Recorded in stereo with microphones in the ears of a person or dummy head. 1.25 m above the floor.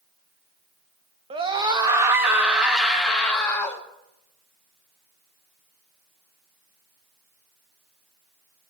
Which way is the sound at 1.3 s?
25° right (ahead or behind).